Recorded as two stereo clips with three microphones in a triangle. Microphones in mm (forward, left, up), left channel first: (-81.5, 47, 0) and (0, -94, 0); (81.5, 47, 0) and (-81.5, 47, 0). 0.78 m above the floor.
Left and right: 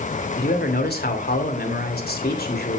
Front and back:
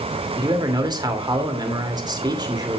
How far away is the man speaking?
About 3 m.